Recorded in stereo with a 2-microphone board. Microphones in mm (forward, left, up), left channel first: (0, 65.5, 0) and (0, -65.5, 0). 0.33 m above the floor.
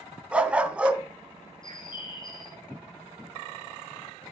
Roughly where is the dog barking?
Centre.